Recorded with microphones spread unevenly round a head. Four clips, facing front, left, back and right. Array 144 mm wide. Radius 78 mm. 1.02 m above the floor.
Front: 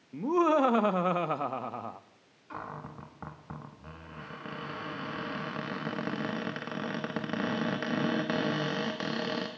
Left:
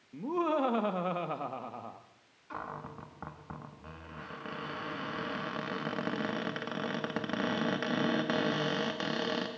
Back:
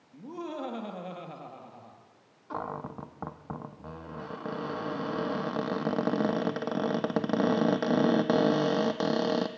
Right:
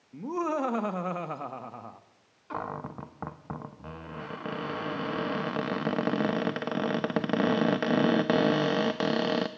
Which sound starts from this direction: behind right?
A cupboard door, at 2.5 s.